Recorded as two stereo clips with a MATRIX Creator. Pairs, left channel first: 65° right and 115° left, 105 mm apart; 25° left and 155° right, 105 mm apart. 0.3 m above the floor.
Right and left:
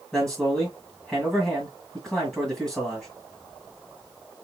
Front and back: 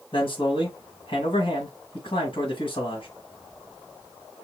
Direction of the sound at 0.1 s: 15° left.